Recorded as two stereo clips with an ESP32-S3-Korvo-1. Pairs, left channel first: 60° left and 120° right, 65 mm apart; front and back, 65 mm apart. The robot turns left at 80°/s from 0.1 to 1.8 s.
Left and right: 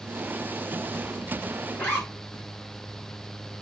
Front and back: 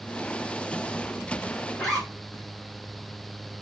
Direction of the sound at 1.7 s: 70° left.